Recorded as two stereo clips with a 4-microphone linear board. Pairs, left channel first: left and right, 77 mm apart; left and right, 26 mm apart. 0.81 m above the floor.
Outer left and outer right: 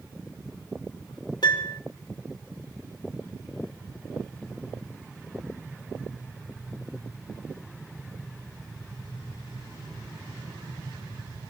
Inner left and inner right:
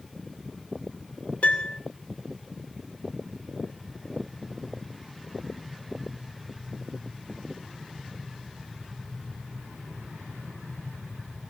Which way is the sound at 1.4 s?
65° left (ahead or behind).